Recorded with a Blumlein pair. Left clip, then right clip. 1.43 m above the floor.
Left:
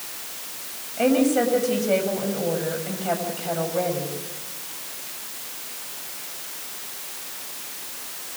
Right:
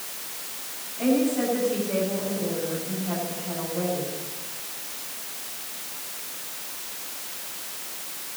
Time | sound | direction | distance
1.0 | a woman speaking | 55° left | 8 m